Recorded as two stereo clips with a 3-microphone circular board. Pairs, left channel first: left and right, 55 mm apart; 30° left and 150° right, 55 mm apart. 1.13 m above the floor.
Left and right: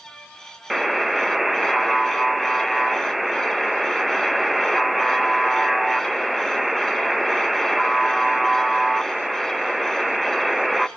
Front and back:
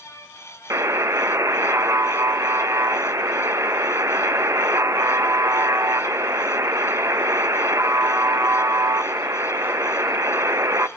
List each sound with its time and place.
0.7 s a buzzer: straight behind, 0.6 m